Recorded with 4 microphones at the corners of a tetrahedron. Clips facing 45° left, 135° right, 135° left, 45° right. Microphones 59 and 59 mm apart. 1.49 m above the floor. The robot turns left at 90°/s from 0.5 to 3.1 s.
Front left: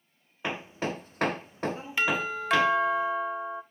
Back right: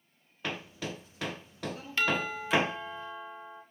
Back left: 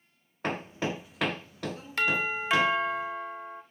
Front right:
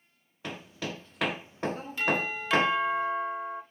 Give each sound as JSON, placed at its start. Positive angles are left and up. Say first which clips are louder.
{"t": 0.4, "sound": "hammering", "louder": "front left 5 dB, back left 6 dB", "azimuth_deg": 110, "distance_m": 0.6}
{"t": 2.0, "sound": "a doorbell", "louder": "front left 2 dB, back left 2 dB", "azimuth_deg": 120, "distance_m": 1.4}